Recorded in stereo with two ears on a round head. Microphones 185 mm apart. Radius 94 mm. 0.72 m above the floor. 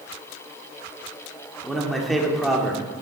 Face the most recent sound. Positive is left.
turn(degrees=0)  # may be behind; listen again after turning